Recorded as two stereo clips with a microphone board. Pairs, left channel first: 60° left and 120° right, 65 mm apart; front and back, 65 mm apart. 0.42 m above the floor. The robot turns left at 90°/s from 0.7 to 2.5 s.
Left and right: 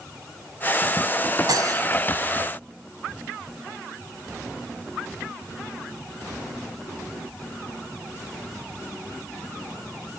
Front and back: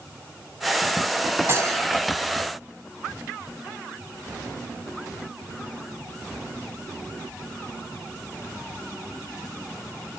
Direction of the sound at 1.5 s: 130° right.